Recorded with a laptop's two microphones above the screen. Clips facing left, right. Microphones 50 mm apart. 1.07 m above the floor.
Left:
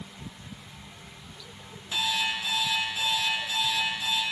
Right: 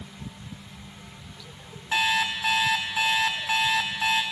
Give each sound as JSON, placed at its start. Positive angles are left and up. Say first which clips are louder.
{"t": 1.9, "sound": "an alarm clock", "louder": "right 5 dB", "side_deg": -85, "distance_m": 2.0}